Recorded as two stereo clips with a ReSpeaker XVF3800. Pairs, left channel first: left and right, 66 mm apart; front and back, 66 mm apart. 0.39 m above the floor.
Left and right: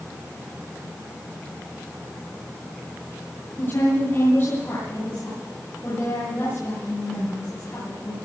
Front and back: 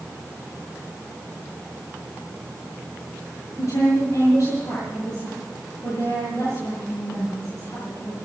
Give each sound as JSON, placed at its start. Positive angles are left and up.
{"t": 3.6, "sound": "a woman speaking", "azimuth_deg": 45, "distance_m": 9.0}